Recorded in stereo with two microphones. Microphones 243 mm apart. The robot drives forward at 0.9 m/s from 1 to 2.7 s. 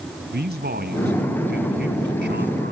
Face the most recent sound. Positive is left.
turn(degrees=-40)  # may be behind; listen again after turning